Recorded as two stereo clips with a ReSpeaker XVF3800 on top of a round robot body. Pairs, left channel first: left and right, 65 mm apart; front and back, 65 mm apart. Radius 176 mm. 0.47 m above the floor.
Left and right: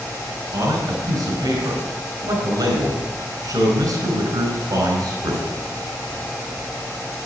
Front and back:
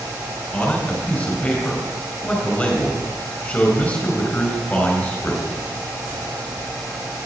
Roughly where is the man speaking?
Right.